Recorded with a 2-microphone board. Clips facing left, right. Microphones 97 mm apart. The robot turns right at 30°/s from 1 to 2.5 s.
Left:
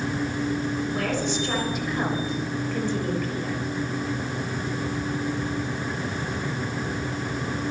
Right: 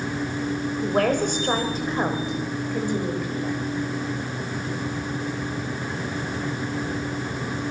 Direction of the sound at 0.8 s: 60° right.